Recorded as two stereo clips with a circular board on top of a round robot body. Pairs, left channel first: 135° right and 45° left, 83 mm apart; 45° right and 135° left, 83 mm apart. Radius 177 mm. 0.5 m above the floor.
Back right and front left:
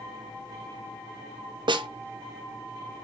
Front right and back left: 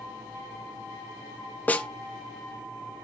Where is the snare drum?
25° left, 1.7 m.